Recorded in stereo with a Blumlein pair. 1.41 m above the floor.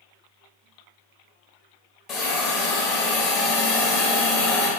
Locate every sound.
2.1 s a hiss: 25° left, 0.8 m